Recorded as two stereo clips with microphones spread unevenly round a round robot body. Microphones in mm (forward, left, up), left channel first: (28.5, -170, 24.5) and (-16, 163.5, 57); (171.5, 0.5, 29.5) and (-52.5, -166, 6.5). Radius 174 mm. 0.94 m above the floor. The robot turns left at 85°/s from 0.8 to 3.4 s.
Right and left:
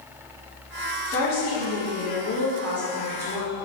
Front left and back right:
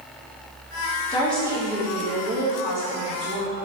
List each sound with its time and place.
1.1 s a woman speaking: 35° right, 1.1 m; by 3.5 s 130° left, 1.1 m